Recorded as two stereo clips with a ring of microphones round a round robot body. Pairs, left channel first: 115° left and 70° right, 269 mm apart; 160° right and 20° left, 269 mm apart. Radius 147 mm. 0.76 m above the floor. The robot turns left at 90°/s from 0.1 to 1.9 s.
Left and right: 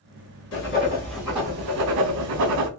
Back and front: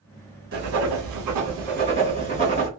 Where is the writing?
80° left, 2.5 m; by 2.7 s 45° right, 2.5 m.